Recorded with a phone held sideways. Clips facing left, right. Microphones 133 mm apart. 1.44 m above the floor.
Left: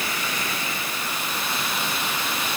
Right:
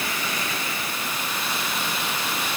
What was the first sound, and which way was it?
Only background noise.